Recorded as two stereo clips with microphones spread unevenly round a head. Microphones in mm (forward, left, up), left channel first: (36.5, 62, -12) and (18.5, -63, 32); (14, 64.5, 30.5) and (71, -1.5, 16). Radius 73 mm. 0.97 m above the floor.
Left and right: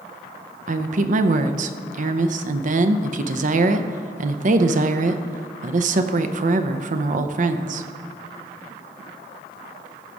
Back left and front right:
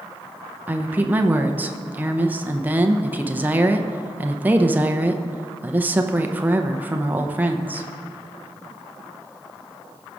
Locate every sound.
0.7 s a woman speaking: 90° right, 0.6 m